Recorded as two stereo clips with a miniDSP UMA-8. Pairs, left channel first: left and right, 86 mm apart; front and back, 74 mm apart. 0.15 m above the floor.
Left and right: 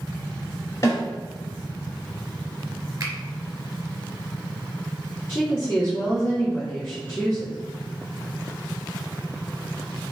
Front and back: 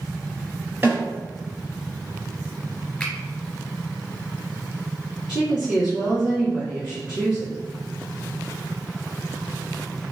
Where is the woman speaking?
110° left, 1.2 m.